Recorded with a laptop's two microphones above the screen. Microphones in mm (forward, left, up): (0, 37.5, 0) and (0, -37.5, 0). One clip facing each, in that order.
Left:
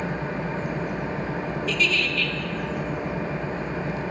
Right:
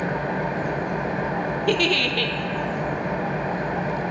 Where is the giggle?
60° right (ahead or behind), 1.2 m.